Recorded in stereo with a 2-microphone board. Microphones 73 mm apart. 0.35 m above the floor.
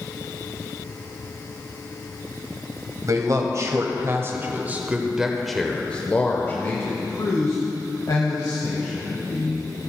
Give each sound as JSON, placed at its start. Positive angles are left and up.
{"t": 3.0, "sound": "a man speaking", "side_deg": -55, "distance_m": 1.6}